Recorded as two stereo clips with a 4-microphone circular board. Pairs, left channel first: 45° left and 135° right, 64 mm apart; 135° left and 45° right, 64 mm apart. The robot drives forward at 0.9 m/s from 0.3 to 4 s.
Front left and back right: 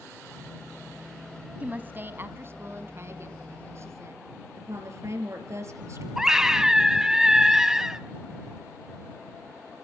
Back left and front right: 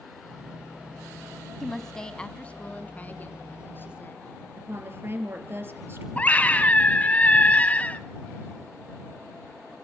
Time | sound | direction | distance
1.6 | a woman speaking | 135° right | 1.4 m
4.6 | a woman speaking | 95° right | 4.5 m
6.2 | a scream | 155° left | 1.5 m